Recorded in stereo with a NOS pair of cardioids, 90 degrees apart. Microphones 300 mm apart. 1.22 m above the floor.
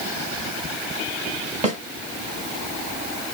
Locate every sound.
1.6 s a snare drum: 25° right, 4 m